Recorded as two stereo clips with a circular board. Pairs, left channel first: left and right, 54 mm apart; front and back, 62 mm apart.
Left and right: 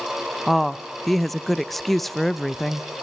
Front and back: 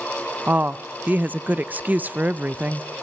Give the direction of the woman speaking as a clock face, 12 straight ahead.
6 o'clock.